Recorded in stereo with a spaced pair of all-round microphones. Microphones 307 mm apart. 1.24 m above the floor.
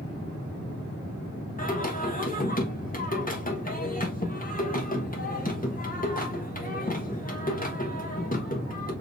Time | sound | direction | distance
1.6 | singing | 30° left (ahead or behind) | 1.3 m